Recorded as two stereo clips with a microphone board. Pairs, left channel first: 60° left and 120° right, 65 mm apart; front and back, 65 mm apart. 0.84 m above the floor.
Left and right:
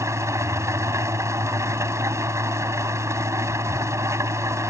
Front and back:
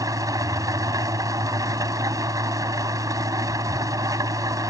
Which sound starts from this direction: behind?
An engine running, at 0.0 s.